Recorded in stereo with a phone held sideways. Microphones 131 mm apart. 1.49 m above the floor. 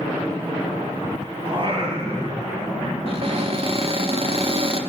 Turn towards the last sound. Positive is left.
turn(degrees=-50)  # may be behind; listen again after turning